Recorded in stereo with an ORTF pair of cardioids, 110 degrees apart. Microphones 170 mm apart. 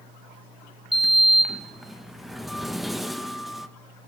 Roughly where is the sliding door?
Ahead.